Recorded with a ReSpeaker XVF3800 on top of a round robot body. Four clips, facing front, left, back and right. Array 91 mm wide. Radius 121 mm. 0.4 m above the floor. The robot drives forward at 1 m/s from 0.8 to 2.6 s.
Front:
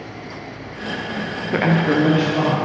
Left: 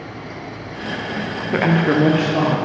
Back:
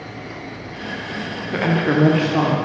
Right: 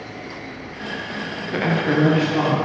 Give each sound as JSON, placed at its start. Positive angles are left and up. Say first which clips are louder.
{"t": 1.5, "sound": "a woman speaking", "louder": "left 3 dB, front 1 dB", "azimuth_deg": 45, "distance_m": 0.8}